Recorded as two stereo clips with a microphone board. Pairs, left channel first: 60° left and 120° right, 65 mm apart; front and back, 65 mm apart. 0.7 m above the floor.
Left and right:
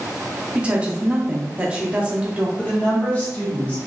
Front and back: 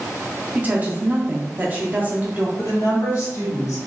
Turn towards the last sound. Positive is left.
turn(degrees=0)